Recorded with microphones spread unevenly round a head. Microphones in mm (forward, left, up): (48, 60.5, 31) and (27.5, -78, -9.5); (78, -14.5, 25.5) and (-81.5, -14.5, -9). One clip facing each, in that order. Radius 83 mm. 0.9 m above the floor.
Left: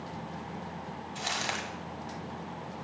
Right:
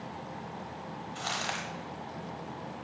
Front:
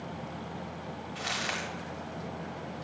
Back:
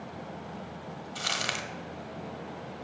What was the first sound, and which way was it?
Crumpling, 150° left.